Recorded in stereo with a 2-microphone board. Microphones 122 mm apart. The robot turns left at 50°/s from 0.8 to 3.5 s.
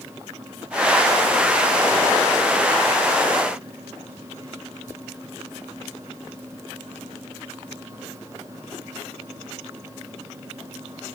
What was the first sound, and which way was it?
Only background noise.